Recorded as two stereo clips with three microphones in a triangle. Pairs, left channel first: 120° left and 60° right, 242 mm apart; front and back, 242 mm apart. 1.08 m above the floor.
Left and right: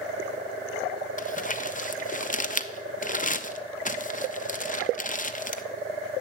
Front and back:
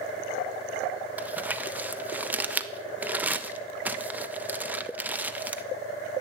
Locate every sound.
1.2 s crumpling: 100° left, 0.6 m